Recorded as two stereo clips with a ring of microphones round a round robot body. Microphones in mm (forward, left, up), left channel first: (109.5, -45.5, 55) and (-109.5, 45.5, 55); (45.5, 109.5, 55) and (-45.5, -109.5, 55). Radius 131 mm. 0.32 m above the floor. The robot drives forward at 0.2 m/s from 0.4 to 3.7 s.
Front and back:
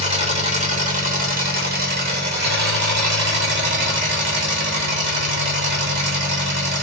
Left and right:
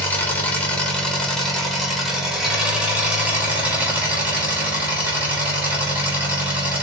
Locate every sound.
0.0 s an engine running: 145° left, 1.0 m; by 6.8 s 165° left, 1.4 m